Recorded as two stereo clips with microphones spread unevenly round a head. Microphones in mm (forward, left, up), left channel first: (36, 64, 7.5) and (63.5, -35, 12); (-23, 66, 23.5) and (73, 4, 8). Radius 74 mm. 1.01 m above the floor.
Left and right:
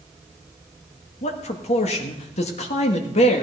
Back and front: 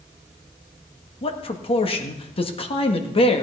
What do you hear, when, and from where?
1.2 s a man speaking: 105° left, 1.7 m